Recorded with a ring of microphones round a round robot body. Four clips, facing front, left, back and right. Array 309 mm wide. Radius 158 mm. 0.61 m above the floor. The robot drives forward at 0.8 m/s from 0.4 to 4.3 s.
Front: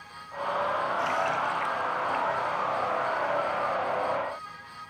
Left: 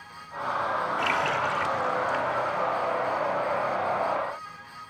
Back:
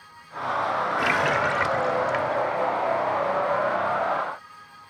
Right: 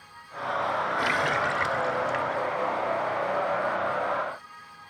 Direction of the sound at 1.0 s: 170° right.